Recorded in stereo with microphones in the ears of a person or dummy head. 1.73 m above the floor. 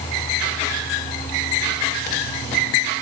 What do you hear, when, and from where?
Only background noise.